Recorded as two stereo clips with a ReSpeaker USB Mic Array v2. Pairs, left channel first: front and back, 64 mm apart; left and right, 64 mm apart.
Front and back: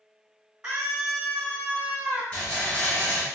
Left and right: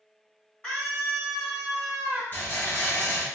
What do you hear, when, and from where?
0.6 s a scream: 125° left, 1.4 m; by 2.2 s 120° right, 1.4 m
2.3 s a rattle: 65° left, 1.9 m